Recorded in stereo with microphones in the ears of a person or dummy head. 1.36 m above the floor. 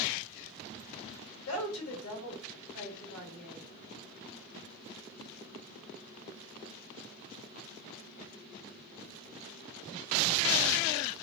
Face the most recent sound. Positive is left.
turn(degrees=85)